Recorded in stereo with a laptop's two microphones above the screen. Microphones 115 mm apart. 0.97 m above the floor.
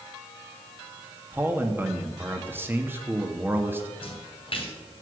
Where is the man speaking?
20° right (ahead or behind), 2 m.